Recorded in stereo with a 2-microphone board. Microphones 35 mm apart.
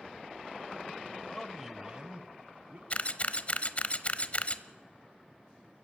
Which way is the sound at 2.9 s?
40° left (ahead or behind).